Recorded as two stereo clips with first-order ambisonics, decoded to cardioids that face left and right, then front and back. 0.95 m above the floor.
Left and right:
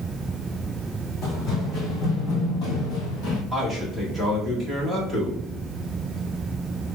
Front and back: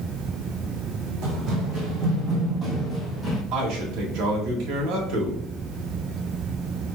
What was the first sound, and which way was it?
Running footsteps, 150° left.